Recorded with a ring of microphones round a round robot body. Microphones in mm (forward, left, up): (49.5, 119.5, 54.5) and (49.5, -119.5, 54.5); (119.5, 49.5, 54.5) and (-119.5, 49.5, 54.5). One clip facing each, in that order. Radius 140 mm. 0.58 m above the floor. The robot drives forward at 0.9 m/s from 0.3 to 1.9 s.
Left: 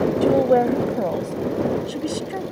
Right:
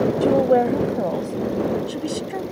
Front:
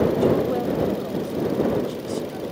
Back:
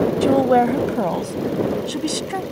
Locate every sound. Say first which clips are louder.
0.2 s a woman speaking: even, back 4 dB; straight behind